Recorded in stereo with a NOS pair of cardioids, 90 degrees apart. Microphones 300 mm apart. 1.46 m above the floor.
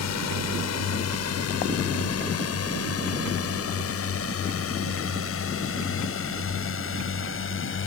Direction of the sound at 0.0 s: 65° left.